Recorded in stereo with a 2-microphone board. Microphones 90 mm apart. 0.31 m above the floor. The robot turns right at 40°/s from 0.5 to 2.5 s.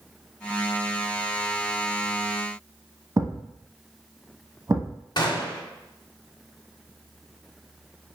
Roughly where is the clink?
No clink in this recording.